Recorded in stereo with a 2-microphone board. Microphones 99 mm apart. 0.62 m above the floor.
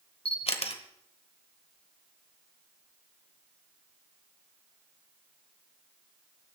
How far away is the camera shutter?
About 1.3 m.